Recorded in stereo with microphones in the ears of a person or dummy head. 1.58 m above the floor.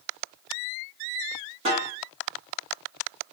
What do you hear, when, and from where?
1.6 s a snare drum: 35° right (ahead or behind), 1.2 m